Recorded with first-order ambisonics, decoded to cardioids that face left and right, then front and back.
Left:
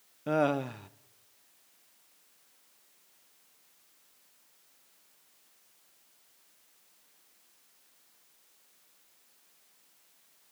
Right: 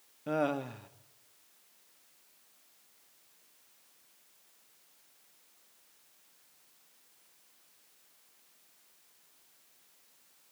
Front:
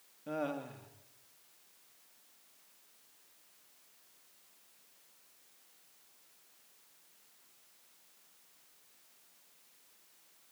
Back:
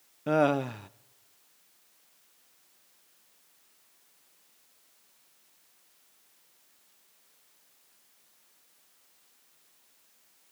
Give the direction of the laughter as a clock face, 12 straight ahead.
7 o'clock.